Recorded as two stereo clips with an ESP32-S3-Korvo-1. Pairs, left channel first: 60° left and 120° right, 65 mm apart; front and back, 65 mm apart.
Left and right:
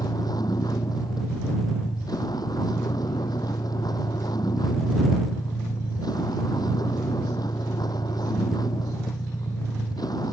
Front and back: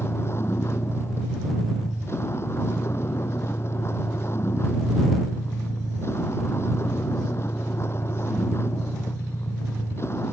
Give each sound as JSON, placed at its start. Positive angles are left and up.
{"t": 0.0, "sound": "a vehicle", "azimuth_deg": 50}